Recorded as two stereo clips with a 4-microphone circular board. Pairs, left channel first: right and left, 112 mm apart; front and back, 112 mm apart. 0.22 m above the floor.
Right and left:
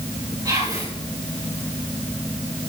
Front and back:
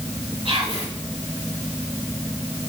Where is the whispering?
145° left, 3.5 m.